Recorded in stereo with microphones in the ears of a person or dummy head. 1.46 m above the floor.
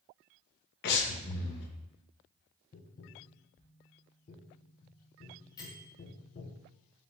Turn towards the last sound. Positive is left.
turn(degrees=20)  # may be behind; listen again after turning